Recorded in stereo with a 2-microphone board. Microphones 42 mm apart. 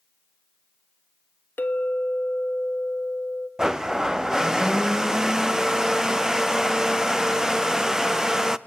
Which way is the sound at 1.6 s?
55° left (ahead or behind).